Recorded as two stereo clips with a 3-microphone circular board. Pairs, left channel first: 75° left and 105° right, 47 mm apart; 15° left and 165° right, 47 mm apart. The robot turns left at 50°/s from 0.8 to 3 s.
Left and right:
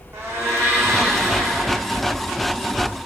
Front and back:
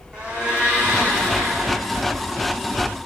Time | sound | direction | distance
0.1 | a blender | 95° right | 2.5 m